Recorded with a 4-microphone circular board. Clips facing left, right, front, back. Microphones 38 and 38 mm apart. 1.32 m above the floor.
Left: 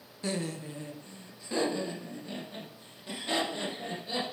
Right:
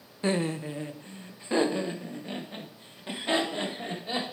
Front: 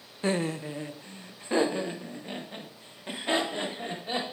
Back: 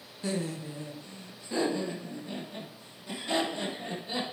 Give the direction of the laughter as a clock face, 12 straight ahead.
1 o'clock.